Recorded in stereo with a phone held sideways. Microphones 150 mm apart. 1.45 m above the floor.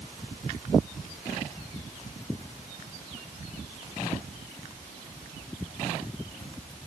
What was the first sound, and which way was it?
Only background noise.